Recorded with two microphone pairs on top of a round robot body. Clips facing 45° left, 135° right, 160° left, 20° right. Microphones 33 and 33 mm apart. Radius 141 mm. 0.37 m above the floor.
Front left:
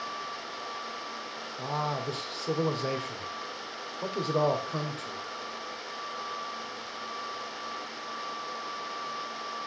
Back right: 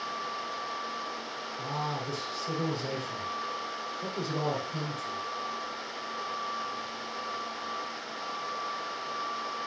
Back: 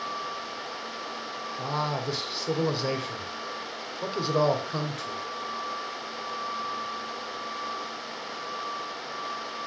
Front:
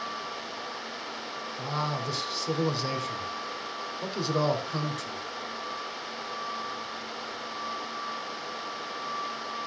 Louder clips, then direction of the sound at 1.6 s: Front left 3 dB, back 2 dB; 90° left.